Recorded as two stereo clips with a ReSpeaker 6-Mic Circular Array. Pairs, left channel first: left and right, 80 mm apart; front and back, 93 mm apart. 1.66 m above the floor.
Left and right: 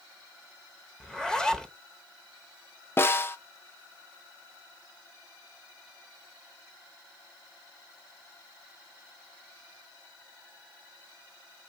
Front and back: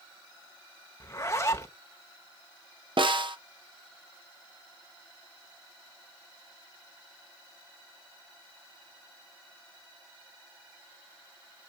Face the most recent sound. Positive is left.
turn(degrees=150)